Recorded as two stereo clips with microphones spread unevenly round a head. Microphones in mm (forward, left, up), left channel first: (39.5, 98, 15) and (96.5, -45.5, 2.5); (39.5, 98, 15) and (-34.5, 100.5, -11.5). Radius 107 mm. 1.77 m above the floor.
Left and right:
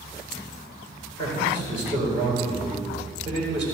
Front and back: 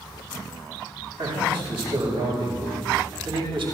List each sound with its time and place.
1.2 s a man speaking: 175° right, 6 m